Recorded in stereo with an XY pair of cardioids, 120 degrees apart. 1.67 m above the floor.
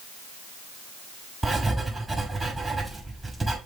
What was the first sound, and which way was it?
Writing, 10° right.